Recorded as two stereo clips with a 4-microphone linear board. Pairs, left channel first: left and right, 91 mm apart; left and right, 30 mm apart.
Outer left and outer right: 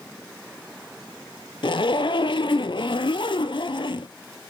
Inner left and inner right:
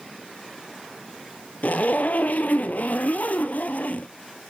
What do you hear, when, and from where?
1.6 s a zipper: 65° left (ahead or behind), 0.6 m